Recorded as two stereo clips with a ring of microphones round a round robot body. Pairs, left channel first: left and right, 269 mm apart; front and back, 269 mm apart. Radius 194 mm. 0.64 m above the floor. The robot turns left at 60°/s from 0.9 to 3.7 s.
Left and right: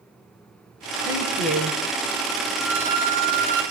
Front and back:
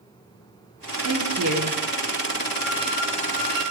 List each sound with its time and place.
1.1 s a woman speaking: 165° left, 9.5 m; by 1.8 s 120° left, 9.5 m
2.6 s a violin: 5° left, 8.5 m; by 3.6 s 55° right, 8.5 m